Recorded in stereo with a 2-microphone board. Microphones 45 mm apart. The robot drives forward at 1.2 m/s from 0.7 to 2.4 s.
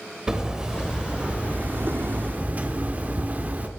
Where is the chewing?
No chewing in this recording.